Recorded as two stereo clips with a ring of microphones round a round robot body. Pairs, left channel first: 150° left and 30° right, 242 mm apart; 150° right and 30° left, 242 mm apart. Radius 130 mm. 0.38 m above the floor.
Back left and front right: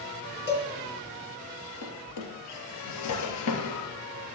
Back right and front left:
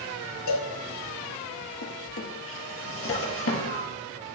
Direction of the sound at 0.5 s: 160° right.